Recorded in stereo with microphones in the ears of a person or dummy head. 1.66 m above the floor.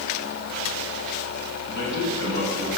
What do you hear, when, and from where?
1.7 s a man speaking: 60° left (ahead or behind), 8.5 m